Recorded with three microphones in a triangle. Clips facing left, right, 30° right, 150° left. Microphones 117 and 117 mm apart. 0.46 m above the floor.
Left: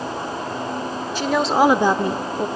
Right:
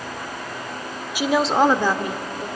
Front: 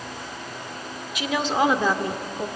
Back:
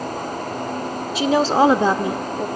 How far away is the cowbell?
I don't hear a cowbell.